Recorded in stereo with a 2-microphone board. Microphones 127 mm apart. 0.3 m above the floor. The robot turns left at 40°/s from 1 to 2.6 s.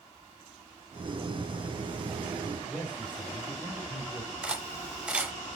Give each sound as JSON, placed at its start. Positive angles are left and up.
{"t": 2.7, "sound": "a man speaking", "side_deg": -10, "distance_m": 1.4}
{"t": 4.4, "sound": "cutlery clinking", "side_deg": -10, "distance_m": 0.8}